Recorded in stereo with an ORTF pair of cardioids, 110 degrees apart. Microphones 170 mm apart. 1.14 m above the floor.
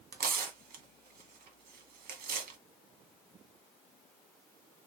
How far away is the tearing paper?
About 1.6 m.